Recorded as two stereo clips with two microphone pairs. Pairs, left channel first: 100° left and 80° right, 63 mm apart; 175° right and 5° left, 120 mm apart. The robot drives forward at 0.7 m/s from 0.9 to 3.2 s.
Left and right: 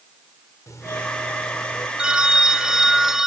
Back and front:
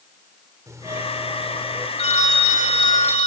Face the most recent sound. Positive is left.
turn(degrees=-160)